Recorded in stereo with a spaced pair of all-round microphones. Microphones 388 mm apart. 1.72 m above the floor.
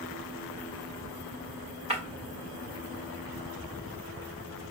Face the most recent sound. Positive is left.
turn(degrees=-15)  # may be behind; listen again after turning